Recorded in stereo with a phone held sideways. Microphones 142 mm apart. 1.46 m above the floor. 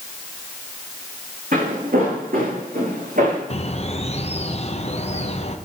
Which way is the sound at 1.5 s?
75° right (ahead or behind).